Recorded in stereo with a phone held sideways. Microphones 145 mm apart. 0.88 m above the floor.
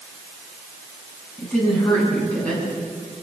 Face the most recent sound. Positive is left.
turn(degrees=5)  # may be behind; listen again after turning